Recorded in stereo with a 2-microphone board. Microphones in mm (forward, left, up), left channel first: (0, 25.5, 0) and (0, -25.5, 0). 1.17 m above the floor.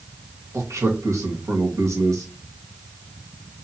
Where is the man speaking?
75° right (ahead or behind), 1.8 m.